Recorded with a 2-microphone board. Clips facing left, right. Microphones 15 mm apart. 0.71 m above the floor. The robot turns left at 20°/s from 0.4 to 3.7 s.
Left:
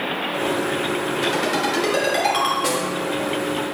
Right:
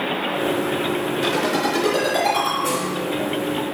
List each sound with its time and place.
1.2 s a ringtone: 5° left (ahead or behind), 4 m; by 2.5 s 30° left (ahead or behind), 4 m
2.6 s a snare drum: 60° left (ahead or behind), 2.5 m